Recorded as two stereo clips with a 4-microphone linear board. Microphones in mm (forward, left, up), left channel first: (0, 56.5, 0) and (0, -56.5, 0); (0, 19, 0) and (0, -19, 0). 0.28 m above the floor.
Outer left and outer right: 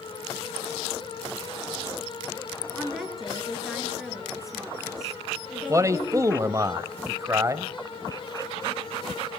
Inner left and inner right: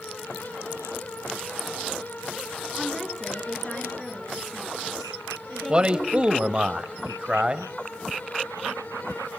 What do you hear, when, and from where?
2.8 s a woman speaking: 5° right (ahead or behind), 5 m
5.7 s a man speaking: 30° right (ahead or behind), 1.1 m